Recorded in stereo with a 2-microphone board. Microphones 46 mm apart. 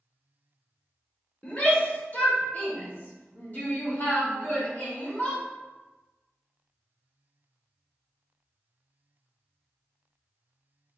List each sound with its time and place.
1.4 s a shout: 30° left (ahead or behind), 1.2 m; by 5.4 s 40° left (ahead or behind), 3 m